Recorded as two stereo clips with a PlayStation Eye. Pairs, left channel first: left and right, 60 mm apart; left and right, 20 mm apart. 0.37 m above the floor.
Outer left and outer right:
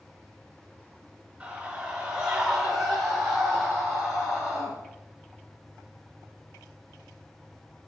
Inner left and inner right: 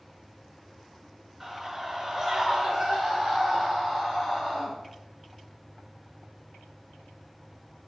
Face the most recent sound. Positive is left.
turn(degrees=5)  # may be behind; listen again after turning